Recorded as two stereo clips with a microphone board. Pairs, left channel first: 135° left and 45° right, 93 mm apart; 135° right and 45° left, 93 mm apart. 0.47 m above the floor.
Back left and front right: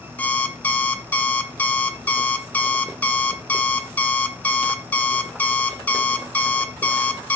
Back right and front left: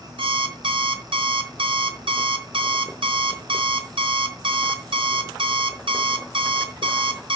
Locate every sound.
0.2 s an alarm clock: 65° left, 0.9 m